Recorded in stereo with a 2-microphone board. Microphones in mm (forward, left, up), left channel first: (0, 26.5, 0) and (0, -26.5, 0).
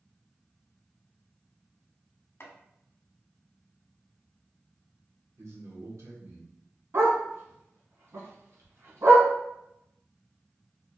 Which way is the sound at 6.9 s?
60° right (ahead or behind).